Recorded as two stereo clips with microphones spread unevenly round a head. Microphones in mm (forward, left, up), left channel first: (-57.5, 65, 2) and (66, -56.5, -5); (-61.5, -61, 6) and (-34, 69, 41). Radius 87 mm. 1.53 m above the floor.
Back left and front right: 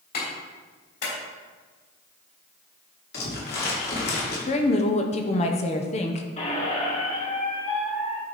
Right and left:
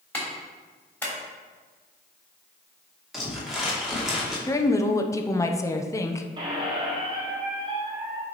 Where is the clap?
175° left, 3 m.